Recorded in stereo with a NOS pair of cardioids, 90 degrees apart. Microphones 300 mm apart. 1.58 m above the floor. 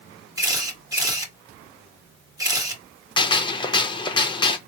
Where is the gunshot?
15° left, 0.7 m.